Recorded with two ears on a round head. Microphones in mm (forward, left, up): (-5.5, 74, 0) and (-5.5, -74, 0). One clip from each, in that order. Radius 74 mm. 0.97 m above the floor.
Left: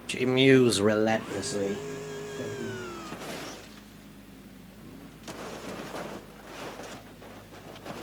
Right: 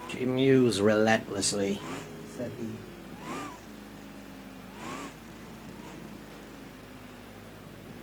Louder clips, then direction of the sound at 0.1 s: Left 4 dB; 70° left (ahead or behind).